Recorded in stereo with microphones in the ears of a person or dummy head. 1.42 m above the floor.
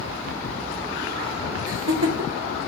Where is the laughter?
70° right (ahead or behind), 0.8 m.